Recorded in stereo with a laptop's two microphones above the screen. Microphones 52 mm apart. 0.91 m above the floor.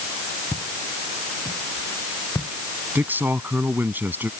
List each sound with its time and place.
0.5 s footsteps: 70° left (ahead or behind)
3.0 s a man speaking: 40° right (ahead or behind)